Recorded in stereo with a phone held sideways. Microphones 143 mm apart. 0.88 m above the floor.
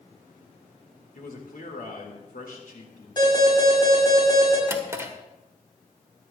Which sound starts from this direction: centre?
A drawer, at 4.7 s.